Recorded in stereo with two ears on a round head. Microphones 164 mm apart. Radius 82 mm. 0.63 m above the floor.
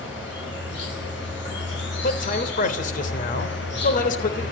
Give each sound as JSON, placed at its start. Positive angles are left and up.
{"t": 0.0, "sound": "an insect", "side_deg": 70, "distance_m": 8.5}
{"t": 2.0, "sound": "a man speaking", "side_deg": 45, "distance_m": 3.0}